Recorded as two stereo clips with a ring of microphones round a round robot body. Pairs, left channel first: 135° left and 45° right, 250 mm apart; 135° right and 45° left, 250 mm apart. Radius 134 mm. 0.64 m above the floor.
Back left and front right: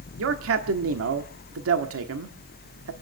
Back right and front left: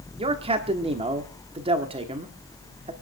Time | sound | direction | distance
0.2 | a man speaking | 20° right | 1.3 m